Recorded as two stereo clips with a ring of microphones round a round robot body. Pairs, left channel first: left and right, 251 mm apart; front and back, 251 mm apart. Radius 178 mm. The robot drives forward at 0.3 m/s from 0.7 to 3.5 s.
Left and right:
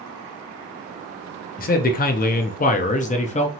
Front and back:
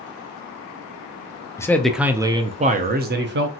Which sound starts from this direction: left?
A man speaking, at 1.6 s.